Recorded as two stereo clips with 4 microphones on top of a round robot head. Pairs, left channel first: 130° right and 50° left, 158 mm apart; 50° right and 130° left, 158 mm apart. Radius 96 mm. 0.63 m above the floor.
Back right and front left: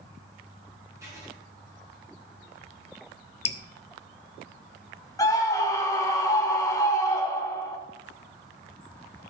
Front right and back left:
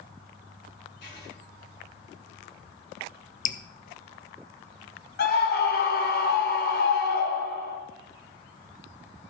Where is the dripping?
80° right, 0.7 m.